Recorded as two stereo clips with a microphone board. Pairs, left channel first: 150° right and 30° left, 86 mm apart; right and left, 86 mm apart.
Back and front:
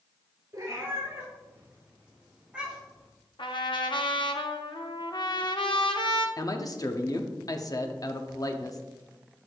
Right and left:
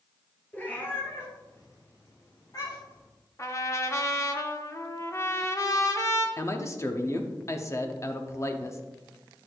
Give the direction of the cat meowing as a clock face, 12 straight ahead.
1 o'clock.